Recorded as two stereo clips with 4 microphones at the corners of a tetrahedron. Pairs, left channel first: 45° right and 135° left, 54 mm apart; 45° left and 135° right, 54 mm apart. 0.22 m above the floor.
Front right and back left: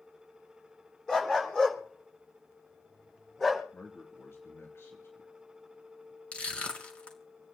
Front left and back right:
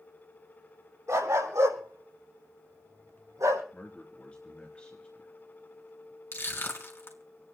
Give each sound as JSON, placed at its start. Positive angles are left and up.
{"t": 1.1, "sound": "a dog barking", "azimuth_deg": -120, "distance_m": 4.5}
{"t": 3.7, "sound": "a man speaking", "azimuth_deg": -20, "distance_m": 3.0}
{"t": 6.3, "sound": "crushing", "azimuth_deg": 15, "distance_m": 3.0}